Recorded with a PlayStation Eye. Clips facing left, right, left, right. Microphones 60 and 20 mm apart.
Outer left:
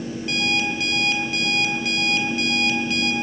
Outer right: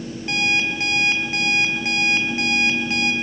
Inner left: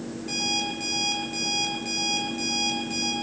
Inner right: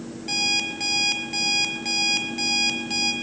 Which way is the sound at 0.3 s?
30° right (ahead or behind).